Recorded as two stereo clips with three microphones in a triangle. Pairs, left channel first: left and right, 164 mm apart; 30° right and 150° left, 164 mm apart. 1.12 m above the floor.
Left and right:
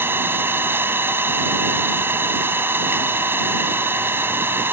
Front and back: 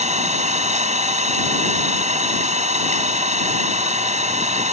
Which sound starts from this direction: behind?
An engine running, at 0.0 s.